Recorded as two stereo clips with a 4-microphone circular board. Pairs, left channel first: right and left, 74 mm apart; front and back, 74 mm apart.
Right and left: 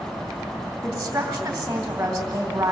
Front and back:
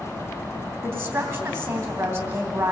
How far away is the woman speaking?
About 2.5 m.